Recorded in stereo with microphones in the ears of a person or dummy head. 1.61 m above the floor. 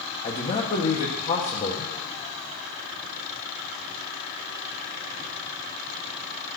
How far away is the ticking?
I don't hear ticking.